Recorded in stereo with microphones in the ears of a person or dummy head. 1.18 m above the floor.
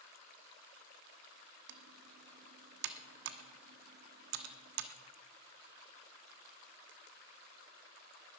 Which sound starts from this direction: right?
Typing on a keyboard, at 1.7 s.